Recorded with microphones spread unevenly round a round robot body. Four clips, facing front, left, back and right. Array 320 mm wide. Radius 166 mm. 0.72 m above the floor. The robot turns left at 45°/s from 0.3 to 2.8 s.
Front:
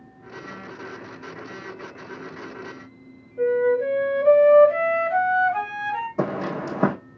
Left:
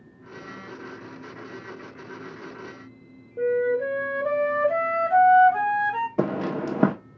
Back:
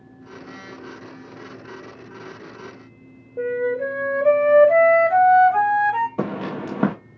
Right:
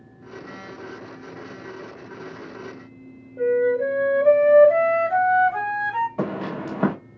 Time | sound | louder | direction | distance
3.4 | a flute | right 3 dB, front 3 dB | 175° left | 1.0 m
6.2 | footsteps | left 2 dB, front 1 dB | 95° left | 1.1 m